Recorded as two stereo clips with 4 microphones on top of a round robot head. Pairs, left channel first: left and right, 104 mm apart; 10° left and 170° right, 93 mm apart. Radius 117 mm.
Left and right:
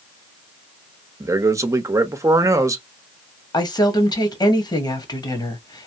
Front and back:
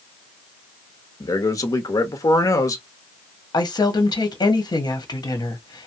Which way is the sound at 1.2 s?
35° right.